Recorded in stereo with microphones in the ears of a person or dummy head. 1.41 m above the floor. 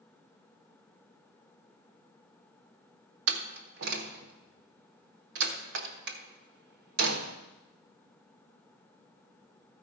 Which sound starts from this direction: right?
A door slam, at 3.3 s.